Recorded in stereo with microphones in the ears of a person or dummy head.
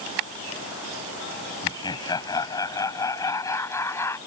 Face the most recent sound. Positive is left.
turn(degrees=20)  # may be behind; listen again after turning